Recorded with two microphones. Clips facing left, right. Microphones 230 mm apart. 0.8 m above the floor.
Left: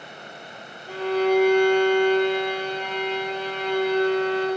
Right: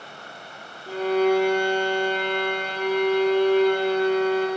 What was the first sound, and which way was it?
A violin, 40° right (ahead or behind).